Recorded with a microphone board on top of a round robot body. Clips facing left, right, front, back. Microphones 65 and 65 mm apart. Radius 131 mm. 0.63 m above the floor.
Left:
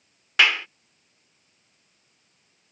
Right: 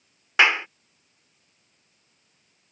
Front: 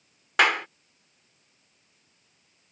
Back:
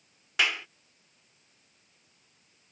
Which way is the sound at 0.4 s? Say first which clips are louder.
Right 2 dB, front 7 dB; 25° right.